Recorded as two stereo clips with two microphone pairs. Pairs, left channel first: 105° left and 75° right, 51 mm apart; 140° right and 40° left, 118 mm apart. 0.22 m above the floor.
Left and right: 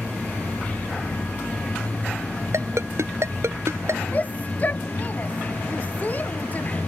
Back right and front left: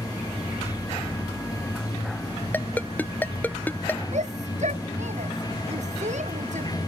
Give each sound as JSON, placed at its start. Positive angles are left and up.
{"t": 0.0, "sound": "running water", "azimuth_deg": 160}
{"t": 2.5, "sound": "a ringtone", "azimuth_deg": -65}
{"t": 4.1, "sound": "a shout", "azimuth_deg": 45}